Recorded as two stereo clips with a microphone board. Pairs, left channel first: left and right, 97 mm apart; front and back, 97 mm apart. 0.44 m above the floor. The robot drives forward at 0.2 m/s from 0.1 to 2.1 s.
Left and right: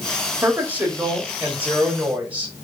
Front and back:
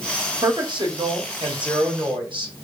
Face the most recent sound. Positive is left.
turn(degrees=-160)